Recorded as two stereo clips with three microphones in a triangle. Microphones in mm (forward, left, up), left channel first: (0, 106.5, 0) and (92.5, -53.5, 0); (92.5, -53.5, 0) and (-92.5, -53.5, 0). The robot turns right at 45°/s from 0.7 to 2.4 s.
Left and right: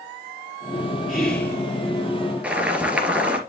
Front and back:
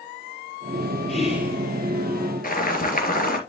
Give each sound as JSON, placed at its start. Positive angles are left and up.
{"t": 1.1, "sound": "whispering", "azimuth_deg": 25, "distance_m": 2.5}
{"t": 2.4, "sound": "boiling", "azimuth_deg": 20, "distance_m": 2.5}